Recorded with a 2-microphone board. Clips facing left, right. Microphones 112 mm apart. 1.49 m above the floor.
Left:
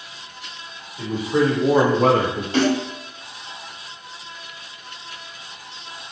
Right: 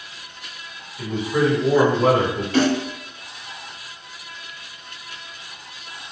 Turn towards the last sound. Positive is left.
turn(degrees=30)  # may be behind; listen again after turning